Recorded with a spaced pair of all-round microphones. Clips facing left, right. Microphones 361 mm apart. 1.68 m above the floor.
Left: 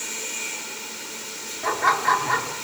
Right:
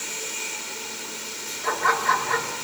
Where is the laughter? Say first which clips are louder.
Even; 80° left, 4.5 m.